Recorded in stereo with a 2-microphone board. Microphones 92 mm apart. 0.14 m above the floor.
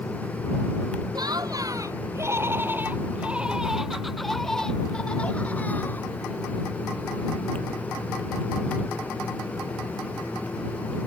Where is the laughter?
50° right (ahead or behind); by 6.1 s 20° left (ahead or behind).